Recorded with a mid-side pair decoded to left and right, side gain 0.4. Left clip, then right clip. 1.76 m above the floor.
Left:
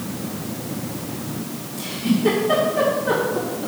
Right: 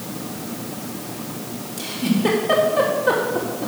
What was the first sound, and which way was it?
A giggle, 55° right.